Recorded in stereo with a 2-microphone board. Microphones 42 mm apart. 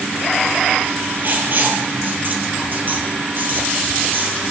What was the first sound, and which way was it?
Writing, 50° right (ahead or behind).